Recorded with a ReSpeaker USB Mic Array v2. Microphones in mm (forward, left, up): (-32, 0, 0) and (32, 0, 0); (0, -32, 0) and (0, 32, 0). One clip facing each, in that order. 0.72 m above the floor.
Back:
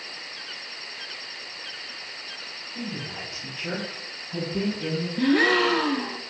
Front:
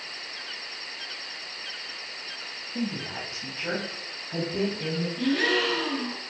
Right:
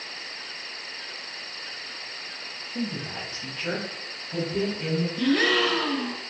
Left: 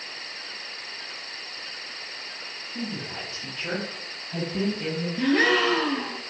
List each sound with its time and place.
2.8 s a woman speaking: 20° right, 1.2 m; by 5.1 s 15° right, 4 m
5.2 s a gasp: 150° left, 0.7 m